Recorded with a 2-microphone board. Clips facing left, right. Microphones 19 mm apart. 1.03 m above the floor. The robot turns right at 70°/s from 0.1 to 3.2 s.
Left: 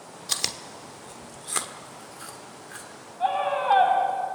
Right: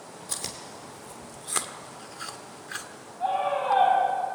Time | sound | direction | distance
0.3 | chewing | 70° left (ahead or behind) | 1.1 m
3.2 | a scream | 45° left (ahead or behind) | 5.5 m